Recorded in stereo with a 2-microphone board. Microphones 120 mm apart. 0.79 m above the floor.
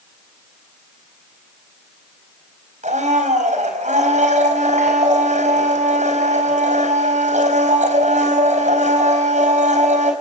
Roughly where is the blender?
Right.